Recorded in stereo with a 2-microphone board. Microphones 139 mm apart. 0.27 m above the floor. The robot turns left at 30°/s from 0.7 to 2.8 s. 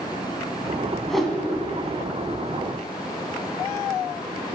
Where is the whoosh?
5° left (ahead or behind), 0.9 m; by 1.4 s 5° right (ahead or behind), 0.9 m.